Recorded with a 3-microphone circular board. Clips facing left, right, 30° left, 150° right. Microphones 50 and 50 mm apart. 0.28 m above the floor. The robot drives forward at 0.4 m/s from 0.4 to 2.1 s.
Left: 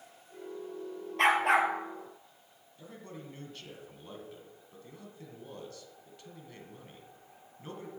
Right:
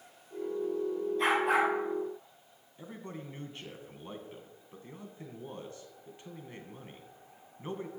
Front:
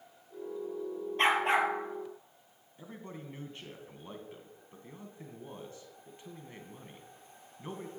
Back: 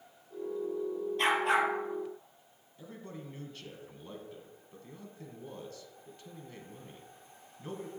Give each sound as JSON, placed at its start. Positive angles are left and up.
{"t": 1.2, "sound": "a dog barking", "azimuth_deg": 85, "distance_m": 1.8}
{"t": 2.8, "sound": "a man speaking", "azimuth_deg": -30, "distance_m": 2.0}